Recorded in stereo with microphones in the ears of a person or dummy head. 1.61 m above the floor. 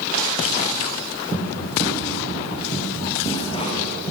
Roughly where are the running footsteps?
Centre.